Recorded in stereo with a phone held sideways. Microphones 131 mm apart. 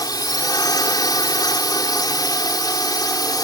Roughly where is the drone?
Left.